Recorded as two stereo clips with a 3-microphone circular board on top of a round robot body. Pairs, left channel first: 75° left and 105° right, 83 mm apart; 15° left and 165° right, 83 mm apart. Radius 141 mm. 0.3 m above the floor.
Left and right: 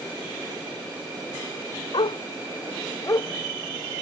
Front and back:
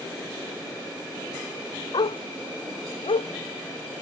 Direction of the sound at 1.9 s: 45° left.